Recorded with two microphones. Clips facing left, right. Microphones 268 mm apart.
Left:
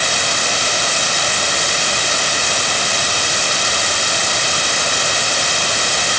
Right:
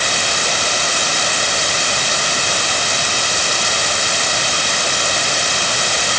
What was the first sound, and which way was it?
Only background noise.